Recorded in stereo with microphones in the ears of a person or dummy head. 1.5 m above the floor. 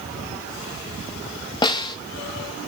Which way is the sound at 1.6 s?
25° left (ahead or behind).